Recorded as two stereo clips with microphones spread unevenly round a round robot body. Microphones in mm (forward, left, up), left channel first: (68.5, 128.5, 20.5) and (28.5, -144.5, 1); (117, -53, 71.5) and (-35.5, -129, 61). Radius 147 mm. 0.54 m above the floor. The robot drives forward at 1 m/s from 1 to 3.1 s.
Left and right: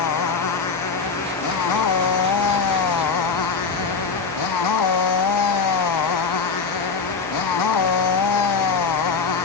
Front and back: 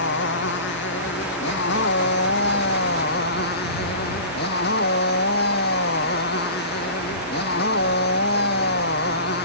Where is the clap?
No clap in this recording.